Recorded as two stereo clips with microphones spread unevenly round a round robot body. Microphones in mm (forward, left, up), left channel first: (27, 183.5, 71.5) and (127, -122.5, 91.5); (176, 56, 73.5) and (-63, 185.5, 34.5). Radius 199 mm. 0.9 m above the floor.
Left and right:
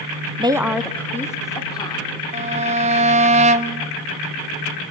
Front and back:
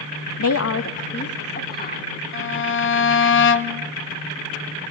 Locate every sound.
0.4 s a woman speaking: 5° left, 0.9 m; by 2.2 s 30° left, 3.5 m
2.3 s a violin: 10° right, 0.6 m